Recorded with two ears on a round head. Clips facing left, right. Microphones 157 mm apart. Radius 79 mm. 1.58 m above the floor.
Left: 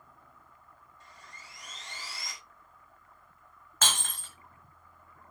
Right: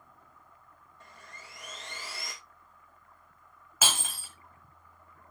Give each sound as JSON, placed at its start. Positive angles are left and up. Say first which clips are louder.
{"t": 1.0, "sound": "sawing", "louder": "right 3 dB", "side_deg": -45, "distance_m": 2.5}
{"t": 3.8, "sound": "breaking glass", "louder": "right 1 dB", "side_deg": -5, "distance_m": 1.5}